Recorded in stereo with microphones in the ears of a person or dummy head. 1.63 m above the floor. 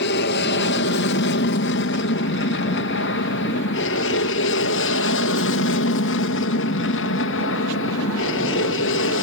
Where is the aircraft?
50° left (ahead or behind); by 9.2 s 60° left (ahead or behind).